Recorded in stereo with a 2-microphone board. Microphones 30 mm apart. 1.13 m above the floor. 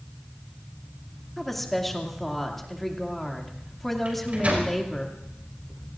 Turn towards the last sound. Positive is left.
turn(degrees=-55)  # may be behind; listen again after turning